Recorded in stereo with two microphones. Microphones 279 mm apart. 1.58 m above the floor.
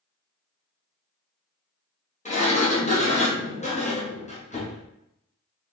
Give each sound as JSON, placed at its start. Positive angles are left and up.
{"t": 2.2, "sound": "a sliding door", "side_deg": 25, "distance_m": 0.9}